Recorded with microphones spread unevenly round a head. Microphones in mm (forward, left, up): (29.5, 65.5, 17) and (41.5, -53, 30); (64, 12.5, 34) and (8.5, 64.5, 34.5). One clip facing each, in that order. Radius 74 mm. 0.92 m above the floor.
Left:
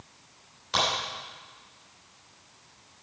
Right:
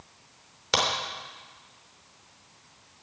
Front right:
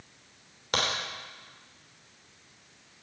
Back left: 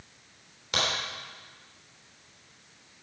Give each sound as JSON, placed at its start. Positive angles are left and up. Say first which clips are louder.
{"t": 0.7, "sound": "a crack", "louder": "right 1 dB, front right 1 dB", "azimuth_deg": -105, "distance_m": 3.0}